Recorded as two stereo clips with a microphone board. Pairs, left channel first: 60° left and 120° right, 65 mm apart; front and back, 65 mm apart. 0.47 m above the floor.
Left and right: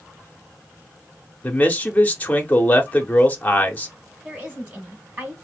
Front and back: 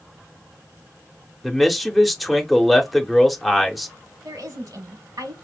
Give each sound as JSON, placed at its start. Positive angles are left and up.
{"t": 1.4, "sound": "a man speaking", "azimuth_deg": 90, "distance_m": 0.8}
{"t": 4.2, "sound": "a woman speaking", "azimuth_deg": 175, "distance_m": 3.5}